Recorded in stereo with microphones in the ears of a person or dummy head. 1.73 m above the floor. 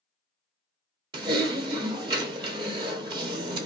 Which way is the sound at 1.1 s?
20° right (ahead or behind).